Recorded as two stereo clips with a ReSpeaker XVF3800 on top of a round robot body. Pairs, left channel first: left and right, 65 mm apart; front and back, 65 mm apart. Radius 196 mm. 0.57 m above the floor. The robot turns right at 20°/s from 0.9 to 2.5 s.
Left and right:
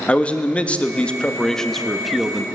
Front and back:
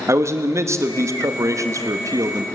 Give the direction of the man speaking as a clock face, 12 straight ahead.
7 o'clock.